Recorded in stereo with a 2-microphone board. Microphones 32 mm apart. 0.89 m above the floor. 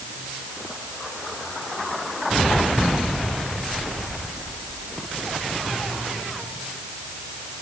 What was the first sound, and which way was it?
Only background noise.